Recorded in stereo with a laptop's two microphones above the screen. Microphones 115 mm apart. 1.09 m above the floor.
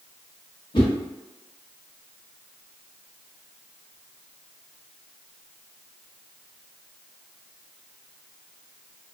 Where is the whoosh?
45° left (ahead or behind), 0.8 m.